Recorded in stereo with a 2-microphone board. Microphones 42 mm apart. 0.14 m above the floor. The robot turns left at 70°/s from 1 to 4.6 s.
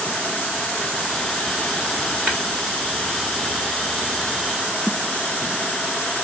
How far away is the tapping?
About 1.8 m.